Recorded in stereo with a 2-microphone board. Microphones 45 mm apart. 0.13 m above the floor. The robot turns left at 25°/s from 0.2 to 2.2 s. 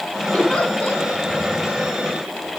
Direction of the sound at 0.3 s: 20° left (ahead or behind).